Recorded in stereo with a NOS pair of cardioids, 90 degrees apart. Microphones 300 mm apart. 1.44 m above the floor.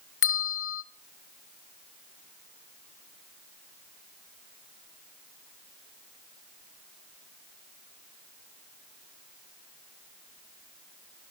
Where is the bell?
45° left, 1.3 m.